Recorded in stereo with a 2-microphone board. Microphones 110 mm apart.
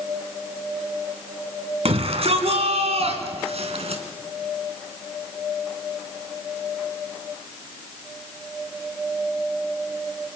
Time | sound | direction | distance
1.9 | a shout | 65° right (ahead or behind) | 3.5 m